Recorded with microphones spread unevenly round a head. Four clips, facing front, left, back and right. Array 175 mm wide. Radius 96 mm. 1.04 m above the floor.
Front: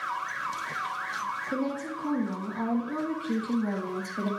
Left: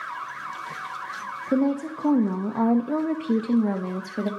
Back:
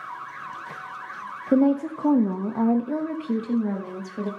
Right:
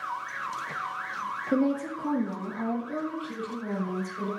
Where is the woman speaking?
170° left, 1.4 m; by 4.3 s 90° left, 2 m.